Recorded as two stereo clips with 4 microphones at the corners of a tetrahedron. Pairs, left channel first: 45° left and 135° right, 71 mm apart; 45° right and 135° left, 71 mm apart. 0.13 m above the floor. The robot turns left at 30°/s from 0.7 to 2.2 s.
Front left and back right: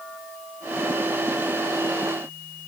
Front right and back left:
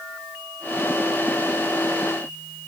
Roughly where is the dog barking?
No dog barking in this recording.